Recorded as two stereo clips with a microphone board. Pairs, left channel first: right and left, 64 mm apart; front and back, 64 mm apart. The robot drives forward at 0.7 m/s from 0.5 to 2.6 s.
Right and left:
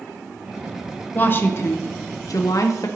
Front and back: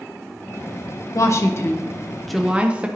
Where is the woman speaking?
30° right, 1.0 m; by 2.9 s 110° right, 0.6 m.